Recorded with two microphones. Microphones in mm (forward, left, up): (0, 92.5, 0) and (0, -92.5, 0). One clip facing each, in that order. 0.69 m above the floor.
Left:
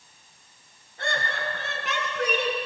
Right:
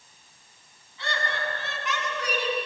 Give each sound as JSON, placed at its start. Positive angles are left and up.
{"t": 1.0, "sound": "laughter", "side_deg": 50, "distance_m": 5.5}